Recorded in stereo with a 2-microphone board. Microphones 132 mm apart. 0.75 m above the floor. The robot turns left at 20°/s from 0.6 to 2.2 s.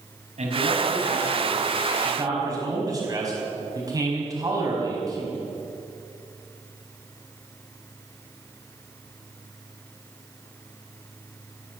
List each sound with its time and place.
0.4 s a man speaking: 120° right, 5 m; by 5.4 s 150° right, 5 m